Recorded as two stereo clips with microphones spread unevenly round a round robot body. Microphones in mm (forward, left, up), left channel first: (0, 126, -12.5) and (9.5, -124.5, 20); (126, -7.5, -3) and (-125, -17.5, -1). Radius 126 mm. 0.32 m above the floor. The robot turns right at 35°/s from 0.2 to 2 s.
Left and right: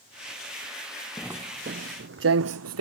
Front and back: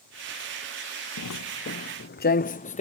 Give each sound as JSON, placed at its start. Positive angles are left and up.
{"t": 1.2, "sound": "footsteps", "azimuth_deg": 0}